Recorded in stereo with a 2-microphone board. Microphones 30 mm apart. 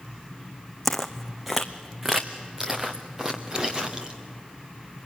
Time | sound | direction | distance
0.8 | footsteps | 10° left (ahead or behind) | 1.0 m